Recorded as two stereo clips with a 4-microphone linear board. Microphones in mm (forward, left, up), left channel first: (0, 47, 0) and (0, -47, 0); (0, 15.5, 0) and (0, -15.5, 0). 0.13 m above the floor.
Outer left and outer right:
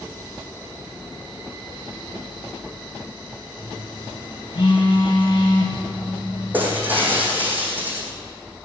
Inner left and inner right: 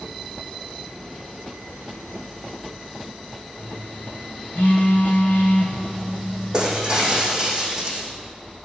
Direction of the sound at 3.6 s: 65° left (ahead or behind).